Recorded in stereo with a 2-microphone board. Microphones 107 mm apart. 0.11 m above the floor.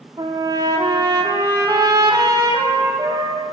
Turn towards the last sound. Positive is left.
turn(degrees=-35)  # may be behind; listen again after turning